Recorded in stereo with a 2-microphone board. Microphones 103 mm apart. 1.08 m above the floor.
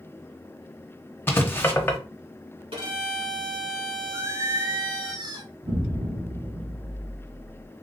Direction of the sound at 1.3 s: 20° left (ahead or behind).